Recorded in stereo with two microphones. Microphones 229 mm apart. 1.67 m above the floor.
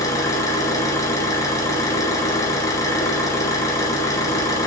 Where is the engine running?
15° left (ahead or behind), 1.1 m.